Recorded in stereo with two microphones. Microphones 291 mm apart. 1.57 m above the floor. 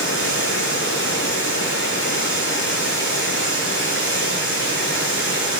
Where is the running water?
45° right (ahead or behind), 7.5 m.